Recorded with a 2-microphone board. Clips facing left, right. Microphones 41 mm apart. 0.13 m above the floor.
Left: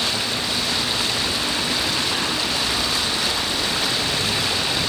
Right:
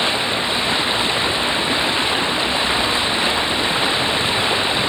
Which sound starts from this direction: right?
Running water, at 0.0 s.